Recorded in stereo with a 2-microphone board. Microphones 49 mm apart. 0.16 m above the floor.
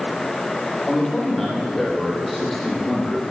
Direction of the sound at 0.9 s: 10° left (ahead or behind).